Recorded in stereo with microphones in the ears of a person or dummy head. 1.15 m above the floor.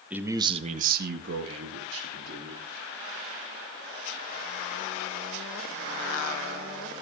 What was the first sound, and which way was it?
A man speaking, 10° right (ahead or behind).